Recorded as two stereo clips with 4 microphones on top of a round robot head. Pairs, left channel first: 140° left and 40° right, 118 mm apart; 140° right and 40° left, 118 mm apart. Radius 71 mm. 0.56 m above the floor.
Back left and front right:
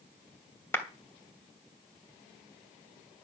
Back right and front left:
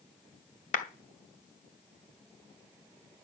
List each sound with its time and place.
0.7 s a clap: 150° right, 2 m